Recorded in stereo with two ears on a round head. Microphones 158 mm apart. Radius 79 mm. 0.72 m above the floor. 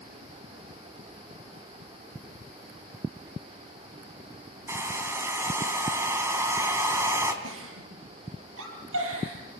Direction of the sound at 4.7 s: 15° right (ahead or behind).